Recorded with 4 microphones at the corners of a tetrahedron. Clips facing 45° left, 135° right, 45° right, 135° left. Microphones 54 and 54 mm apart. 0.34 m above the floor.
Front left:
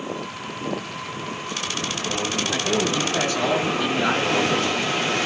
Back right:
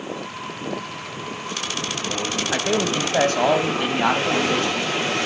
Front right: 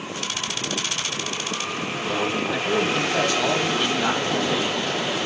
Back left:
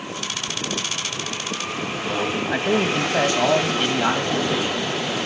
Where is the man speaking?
175° left, 1.8 m; by 5.2 s 145° right, 3.5 m.